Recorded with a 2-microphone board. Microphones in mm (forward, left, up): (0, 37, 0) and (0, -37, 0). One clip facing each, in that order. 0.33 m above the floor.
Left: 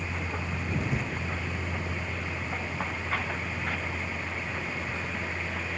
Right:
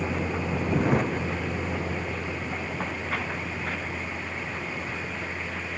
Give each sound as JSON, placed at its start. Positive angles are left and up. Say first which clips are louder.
{"t": 0.0, "sound": "a vehicle", "louder": "right 6 dB", "side_deg": -75}